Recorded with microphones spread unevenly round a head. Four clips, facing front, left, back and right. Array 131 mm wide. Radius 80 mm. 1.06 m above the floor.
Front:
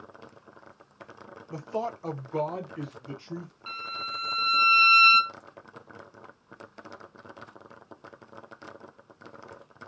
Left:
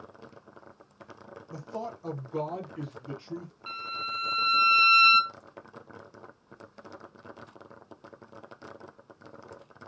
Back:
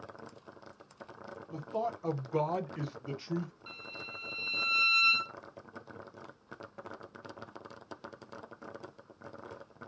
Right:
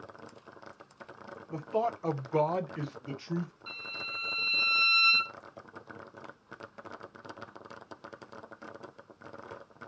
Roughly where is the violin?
Ahead left.